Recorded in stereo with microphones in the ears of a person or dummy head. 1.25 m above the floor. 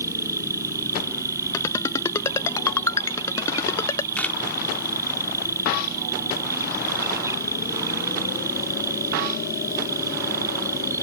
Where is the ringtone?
20° left (ahead or behind).